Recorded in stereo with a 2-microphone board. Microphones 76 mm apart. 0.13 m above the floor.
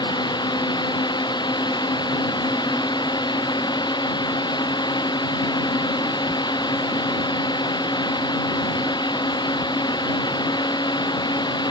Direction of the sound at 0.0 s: 80° left.